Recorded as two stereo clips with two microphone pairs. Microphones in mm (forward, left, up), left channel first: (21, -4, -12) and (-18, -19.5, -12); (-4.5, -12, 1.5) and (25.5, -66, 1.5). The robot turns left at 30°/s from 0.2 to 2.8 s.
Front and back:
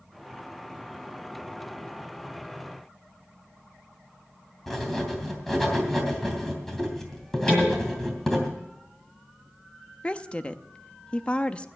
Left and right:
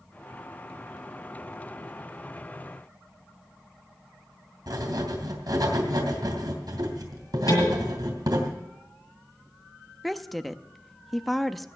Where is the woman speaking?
25° left, 0.6 m.